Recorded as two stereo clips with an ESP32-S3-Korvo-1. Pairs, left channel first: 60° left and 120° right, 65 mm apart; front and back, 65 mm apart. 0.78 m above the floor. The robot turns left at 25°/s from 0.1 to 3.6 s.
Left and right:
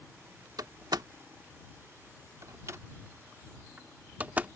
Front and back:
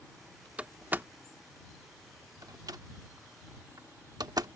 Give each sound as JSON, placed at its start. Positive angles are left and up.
{"t": 0.6, "sound": "a door slam", "azimuth_deg": -110}